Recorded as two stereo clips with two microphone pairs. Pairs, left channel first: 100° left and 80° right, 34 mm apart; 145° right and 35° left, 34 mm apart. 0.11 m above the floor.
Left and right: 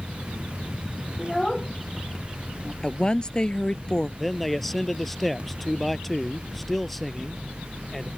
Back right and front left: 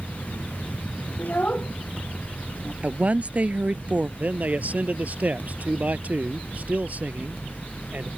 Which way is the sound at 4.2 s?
20° left.